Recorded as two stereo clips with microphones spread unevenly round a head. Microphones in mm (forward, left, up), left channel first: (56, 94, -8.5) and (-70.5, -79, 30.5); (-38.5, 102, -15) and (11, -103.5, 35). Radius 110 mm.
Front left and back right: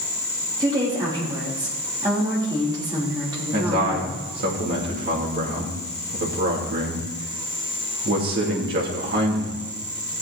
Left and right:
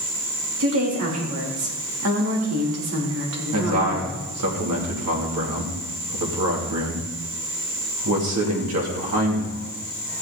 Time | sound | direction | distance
0.6 | a woman speaking | 55° right | 3.5 m
3.5 | a man speaking | 80° right | 3 m